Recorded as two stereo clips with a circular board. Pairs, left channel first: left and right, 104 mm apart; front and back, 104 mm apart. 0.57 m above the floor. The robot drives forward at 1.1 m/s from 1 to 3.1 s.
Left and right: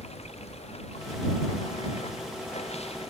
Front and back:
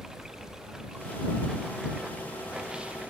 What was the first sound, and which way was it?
Running water, 95° left.